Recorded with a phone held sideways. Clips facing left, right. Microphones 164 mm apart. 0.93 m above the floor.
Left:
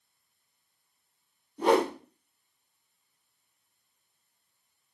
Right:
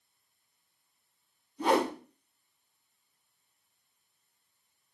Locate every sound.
1.6 s a whoosh: 60° left (ahead or behind), 2 m